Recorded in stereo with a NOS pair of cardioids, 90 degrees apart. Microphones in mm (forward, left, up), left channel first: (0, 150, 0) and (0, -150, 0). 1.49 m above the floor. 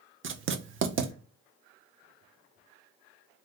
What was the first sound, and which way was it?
Writing, 40° right.